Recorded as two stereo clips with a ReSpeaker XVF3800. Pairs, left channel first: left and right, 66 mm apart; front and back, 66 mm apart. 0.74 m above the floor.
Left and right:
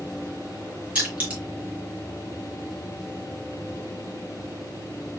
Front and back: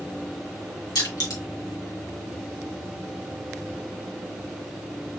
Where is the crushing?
20° right, 1.9 m.